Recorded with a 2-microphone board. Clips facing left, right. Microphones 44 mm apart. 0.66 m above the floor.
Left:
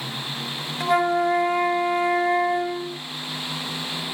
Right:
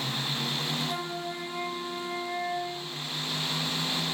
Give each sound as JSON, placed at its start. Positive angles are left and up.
{"t": 0.8, "sound": "a flute", "side_deg": 70, "distance_m": 0.6}